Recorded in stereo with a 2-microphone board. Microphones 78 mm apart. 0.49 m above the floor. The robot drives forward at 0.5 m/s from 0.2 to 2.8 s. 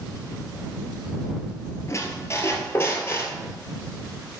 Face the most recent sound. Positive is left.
turn(degrees=30)  # may be behind; listen again after turning